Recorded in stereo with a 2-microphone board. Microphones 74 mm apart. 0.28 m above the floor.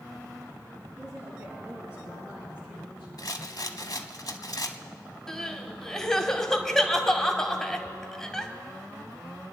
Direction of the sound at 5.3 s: 5° left (ahead or behind).